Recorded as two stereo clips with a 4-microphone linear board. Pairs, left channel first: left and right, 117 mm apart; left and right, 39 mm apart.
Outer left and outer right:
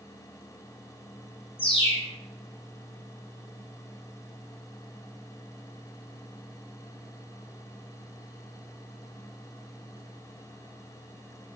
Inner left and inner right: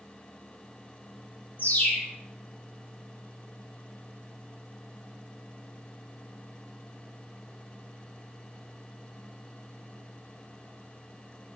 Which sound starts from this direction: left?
A bird, at 1.6 s.